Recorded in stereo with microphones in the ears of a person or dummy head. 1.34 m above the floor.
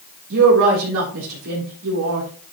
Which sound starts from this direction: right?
A woman speaking, at 0.3 s.